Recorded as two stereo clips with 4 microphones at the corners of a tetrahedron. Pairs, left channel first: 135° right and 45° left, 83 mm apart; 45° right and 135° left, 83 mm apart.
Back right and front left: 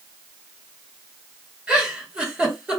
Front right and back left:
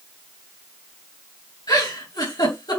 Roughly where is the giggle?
Ahead right.